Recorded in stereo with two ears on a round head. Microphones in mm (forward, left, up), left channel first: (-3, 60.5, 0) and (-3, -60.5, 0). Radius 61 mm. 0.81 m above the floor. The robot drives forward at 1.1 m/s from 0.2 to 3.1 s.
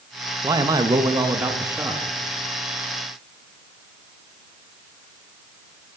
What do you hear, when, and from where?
0.4 s a man speaking: 25° right (ahead or behind), 1.0 m; by 2.0 s 15° right (ahead or behind), 1.7 m